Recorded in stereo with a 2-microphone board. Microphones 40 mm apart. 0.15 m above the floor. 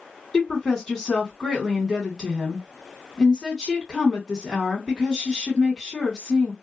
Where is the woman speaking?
5° left (ahead or behind), 1.7 m.